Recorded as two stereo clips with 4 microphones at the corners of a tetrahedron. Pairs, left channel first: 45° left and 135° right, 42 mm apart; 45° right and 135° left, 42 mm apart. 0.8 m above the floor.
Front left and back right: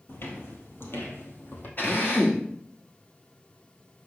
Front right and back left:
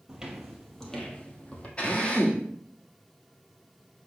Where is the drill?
15° left, 1.9 m.